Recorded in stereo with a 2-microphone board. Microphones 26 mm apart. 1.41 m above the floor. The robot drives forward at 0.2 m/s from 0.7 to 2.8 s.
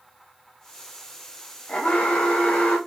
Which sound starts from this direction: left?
An alarm, at 1.7 s.